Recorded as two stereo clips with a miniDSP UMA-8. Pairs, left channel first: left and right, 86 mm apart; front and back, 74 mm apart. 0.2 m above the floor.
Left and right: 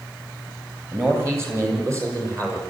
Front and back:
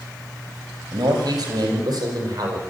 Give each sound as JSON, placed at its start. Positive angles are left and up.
{"t": 0.9, "sound": "a man speaking", "azimuth_deg": -155, "distance_m": 6.5}